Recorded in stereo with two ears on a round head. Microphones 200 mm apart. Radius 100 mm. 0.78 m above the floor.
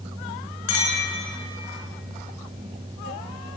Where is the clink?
80° left, 7 m.